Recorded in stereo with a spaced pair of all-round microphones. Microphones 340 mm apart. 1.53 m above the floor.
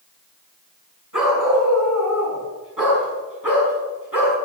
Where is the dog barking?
65° right (ahead or behind), 5 m; by 4.3 s 80° right, 5 m.